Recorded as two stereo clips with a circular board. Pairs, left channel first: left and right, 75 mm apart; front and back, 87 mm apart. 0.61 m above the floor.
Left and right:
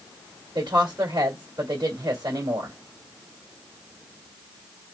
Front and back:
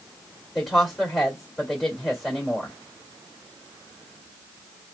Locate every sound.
0.6 s a woman speaking: 90° right, 1.6 m